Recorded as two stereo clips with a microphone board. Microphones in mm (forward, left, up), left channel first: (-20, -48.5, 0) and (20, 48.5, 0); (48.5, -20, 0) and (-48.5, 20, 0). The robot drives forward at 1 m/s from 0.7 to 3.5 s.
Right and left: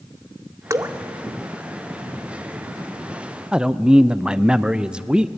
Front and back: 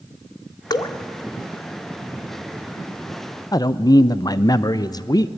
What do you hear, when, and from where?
0.7 s dripping: 15° left, 0.8 m; by 0.9 s 25° left, 0.6 m
3.5 s a man speaking: 10° right, 0.5 m